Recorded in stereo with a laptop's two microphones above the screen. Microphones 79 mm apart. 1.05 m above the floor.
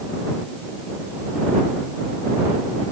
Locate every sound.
Only background noise.